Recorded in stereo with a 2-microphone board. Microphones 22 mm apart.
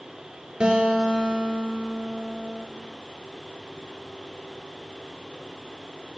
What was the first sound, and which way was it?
A guitar, 45° right (ahead or behind).